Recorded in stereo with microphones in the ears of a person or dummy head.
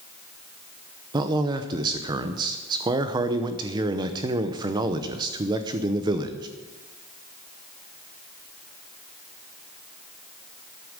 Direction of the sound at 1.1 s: 25° right (ahead or behind).